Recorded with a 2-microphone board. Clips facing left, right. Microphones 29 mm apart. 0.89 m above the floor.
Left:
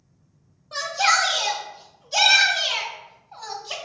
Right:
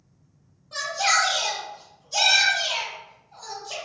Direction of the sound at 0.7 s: 20° left (ahead or behind).